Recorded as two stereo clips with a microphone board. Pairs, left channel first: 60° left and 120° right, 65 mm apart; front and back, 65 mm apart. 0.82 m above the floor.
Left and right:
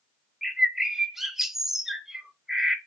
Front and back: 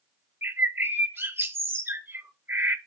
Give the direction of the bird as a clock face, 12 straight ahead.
7 o'clock.